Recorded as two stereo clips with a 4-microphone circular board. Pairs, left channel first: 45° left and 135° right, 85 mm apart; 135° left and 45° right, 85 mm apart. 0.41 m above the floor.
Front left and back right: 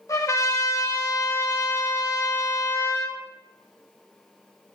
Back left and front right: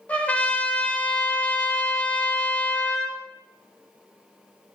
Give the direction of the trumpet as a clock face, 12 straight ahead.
10 o'clock.